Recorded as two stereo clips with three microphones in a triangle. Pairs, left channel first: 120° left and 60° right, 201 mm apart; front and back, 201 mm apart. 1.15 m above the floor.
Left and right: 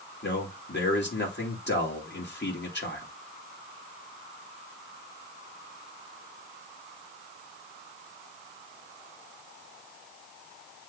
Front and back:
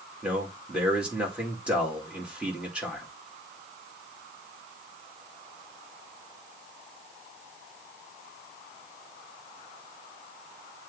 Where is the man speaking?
95° left, 2 m.